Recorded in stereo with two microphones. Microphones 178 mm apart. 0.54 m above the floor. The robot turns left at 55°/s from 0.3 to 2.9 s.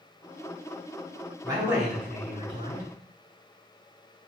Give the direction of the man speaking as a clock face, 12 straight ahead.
5 o'clock.